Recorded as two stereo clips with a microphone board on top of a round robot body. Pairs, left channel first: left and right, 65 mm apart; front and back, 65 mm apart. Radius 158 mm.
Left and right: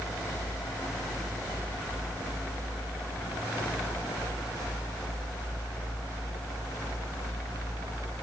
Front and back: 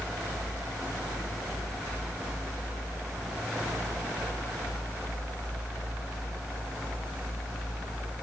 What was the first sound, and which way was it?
Only background noise.